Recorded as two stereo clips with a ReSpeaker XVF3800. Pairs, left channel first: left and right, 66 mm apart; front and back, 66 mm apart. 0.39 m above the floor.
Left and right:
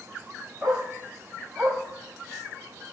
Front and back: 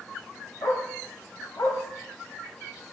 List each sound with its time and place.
0.6 s a dog barking: 5° left, 7 m